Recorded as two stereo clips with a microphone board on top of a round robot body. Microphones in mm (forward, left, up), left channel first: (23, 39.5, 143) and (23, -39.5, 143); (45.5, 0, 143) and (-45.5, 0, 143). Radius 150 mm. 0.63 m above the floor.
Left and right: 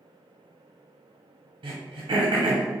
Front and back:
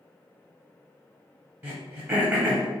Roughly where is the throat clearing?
Right.